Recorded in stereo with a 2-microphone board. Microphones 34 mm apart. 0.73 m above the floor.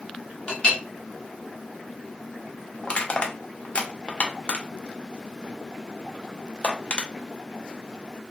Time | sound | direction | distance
0.5 | a clink | 30° left (ahead or behind) | 0.9 m
2.8 | crushing | 35° left (ahead or behind) | 0.5 m